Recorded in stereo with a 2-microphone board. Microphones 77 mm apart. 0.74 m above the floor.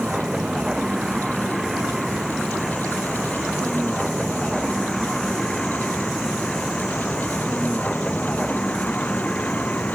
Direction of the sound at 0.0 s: 5° right (ahead or behind).